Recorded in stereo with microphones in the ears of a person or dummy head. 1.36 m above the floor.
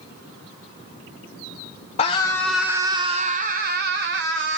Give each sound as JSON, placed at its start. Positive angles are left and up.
{"t": 2.0, "sound": "a scream", "side_deg": 35, "distance_m": 1.0}